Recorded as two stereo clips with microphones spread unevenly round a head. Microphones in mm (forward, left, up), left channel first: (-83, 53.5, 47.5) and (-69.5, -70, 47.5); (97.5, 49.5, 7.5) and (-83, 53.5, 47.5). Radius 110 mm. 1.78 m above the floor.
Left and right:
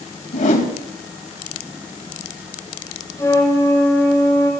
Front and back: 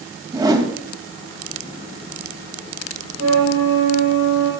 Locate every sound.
0.3 s a whoosh: 110° left, 2.5 m
3.2 s a flute: 160° left, 5.5 m